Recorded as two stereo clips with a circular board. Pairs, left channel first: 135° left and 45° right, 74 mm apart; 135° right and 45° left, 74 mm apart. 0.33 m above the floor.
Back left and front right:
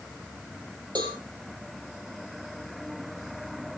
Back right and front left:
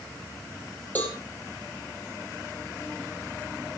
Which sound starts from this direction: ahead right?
A cowbell, at 0.9 s.